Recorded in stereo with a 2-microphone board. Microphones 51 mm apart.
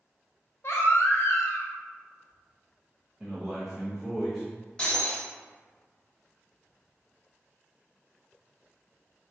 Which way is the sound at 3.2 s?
10° right (ahead or behind).